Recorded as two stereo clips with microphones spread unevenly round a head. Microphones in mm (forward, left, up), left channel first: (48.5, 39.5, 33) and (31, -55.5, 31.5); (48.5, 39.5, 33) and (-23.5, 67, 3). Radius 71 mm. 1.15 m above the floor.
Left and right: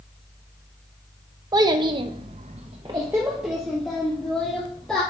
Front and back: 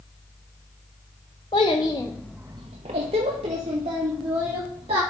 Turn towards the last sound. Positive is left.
turn(degrees=165)